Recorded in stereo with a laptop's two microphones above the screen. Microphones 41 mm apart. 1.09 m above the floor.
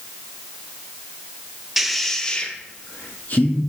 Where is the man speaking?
5° right (ahead or behind), 0.9 m; by 3.6 s 45° left (ahead or behind), 1.8 m.